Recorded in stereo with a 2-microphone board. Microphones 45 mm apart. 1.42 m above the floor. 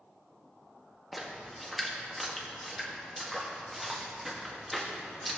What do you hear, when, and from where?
1.1 s a splash: centre (ahead or behind), 1.5 m